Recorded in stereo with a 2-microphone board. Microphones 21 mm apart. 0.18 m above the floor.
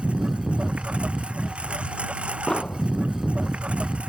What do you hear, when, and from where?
0.0 s a lawn mower: 75° right (ahead or behind)
2.5 s an explosion: 35° left (ahead or behind)